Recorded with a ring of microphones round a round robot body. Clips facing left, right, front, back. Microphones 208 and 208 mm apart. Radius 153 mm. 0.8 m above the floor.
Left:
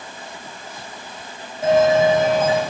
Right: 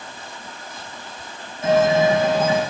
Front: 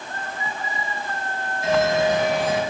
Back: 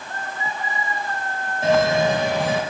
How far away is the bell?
About 3 m.